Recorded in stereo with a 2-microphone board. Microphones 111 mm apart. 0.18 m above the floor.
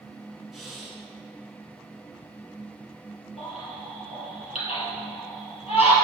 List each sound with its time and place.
0.5 s breathing: 5° right (ahead or behind), 1.4 m
3.4 s a baby crying: 70° left (ahead or behind), 2 m